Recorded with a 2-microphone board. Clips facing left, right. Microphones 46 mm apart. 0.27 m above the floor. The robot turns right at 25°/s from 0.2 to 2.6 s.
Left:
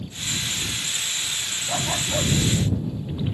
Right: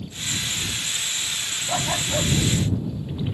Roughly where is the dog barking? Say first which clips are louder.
Right 1 dB; centre.